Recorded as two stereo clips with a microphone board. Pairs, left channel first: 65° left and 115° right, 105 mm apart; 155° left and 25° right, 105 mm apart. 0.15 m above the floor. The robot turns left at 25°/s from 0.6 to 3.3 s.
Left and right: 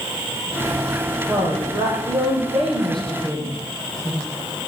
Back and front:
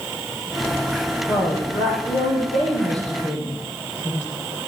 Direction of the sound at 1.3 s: 165° right.